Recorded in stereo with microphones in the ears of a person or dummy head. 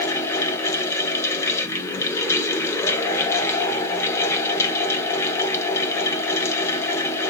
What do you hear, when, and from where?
0.0 s a fan: 10° left (ahead or behind), 1.1 m